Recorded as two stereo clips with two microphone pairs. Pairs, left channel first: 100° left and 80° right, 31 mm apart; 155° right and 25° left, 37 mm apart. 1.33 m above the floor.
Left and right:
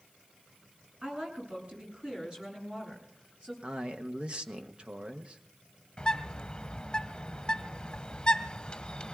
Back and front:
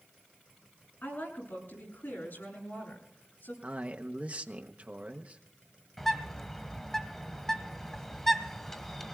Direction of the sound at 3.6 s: 25° right.